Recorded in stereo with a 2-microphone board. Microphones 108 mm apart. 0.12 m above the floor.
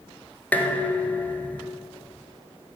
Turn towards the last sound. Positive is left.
turn(degrees=15)  # may be behind; listen again after turning